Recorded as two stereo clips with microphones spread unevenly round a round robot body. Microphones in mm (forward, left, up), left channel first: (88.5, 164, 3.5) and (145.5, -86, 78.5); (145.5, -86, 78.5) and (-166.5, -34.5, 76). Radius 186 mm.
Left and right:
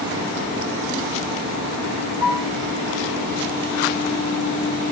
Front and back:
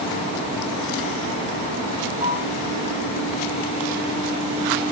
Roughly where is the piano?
Left.